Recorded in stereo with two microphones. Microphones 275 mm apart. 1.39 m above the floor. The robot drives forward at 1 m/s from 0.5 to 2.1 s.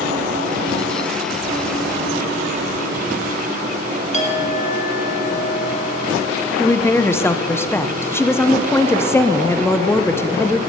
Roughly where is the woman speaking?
Centre.